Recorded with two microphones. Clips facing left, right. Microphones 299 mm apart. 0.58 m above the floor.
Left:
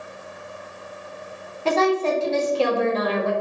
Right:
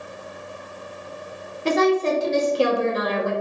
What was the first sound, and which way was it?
A woman speaking, 20° right (ahead or behind).